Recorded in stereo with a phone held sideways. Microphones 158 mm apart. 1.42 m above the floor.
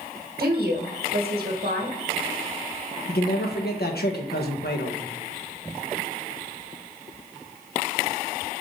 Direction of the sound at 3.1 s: 85° left.